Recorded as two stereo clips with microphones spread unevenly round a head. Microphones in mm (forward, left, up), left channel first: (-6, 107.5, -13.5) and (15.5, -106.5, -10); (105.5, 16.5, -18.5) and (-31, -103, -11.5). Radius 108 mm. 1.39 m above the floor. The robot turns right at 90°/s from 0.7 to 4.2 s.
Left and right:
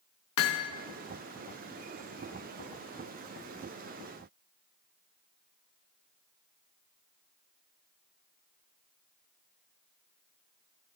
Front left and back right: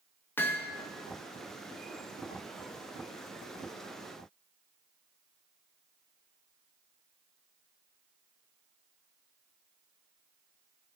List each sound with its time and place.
0.4 s hammering: 125° left, 1.6 m